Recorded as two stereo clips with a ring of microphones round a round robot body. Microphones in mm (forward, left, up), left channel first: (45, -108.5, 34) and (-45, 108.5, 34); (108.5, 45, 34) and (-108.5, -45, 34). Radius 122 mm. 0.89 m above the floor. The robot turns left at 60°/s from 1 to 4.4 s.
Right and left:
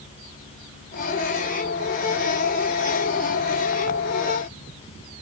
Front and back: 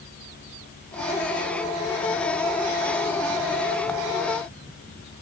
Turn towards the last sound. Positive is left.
No sound to turn to.